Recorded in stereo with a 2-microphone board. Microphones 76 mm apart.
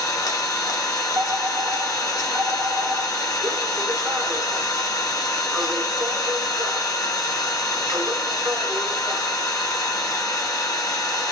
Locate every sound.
0.0 s an engine running: 45° left (ahead or behind), 0.7 m
1.1 s a fire alarm: 20° right (ahead or behind), 1.2 m